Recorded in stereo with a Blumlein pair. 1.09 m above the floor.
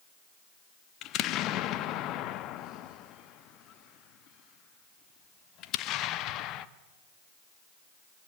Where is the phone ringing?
No phone ringing in this recording.